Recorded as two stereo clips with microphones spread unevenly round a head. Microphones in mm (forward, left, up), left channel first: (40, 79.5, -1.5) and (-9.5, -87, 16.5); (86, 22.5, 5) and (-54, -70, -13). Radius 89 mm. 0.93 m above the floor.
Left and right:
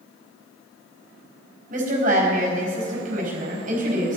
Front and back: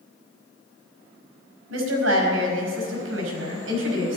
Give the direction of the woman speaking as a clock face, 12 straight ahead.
5 o'clock.